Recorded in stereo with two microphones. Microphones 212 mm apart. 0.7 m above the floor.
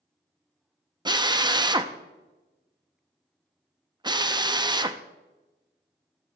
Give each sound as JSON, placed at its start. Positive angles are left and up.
{"t": 1.1, "sound": "a drill", "side_deg": -20, "distance_m": 0.5}